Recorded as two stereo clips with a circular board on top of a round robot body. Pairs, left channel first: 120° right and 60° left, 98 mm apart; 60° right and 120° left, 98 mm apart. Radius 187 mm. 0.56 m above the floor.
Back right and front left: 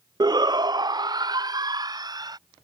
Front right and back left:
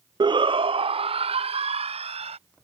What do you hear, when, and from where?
0.2 s a shout: 95° left; by 2.4 s 110° left